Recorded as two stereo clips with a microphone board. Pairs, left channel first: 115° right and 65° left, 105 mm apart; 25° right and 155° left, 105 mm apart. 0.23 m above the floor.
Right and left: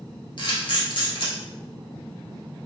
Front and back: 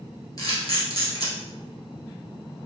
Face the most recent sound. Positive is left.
turn(degrees=-75)